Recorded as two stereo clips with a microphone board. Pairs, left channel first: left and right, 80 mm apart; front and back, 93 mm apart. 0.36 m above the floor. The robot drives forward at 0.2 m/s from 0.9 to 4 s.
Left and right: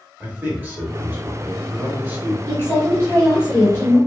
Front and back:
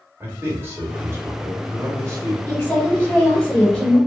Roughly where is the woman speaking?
Ahead left.